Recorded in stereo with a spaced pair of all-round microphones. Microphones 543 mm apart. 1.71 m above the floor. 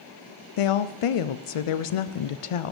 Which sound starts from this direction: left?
A woman speaking, at 0.6 s.